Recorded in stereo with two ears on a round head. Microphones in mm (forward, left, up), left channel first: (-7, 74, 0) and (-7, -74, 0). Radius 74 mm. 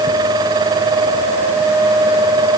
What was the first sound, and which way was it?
Only background noise.